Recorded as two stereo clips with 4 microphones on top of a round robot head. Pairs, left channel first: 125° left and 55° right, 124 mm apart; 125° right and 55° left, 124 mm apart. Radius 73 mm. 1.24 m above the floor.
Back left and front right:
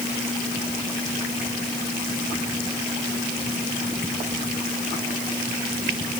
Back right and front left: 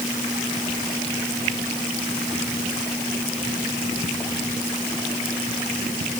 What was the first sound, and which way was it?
Only background noise.